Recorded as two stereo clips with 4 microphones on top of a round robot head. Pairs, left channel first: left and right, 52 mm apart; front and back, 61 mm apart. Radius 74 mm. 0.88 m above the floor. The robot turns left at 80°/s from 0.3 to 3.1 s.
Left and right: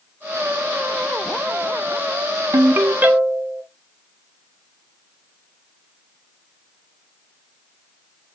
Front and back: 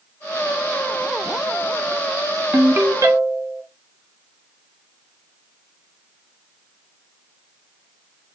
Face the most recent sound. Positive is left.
turn(degrees=-155)